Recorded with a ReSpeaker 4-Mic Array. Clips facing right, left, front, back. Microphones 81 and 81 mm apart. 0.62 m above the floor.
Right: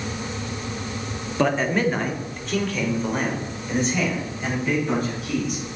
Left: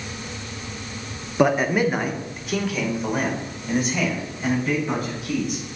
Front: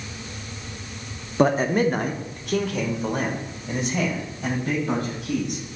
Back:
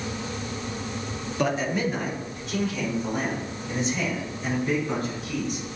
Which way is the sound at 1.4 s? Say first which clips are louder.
Left 2 dB, front 6 dB; 25° left.